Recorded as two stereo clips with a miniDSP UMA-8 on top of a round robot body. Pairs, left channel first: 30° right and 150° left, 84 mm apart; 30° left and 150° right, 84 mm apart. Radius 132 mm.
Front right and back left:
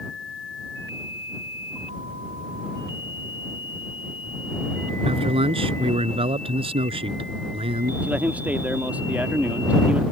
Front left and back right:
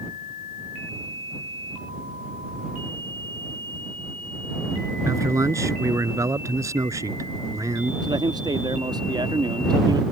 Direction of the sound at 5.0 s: 155° left.